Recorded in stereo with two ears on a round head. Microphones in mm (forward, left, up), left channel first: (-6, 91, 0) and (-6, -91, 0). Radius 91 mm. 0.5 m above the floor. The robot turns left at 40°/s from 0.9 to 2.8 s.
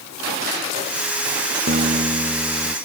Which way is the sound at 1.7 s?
135° right.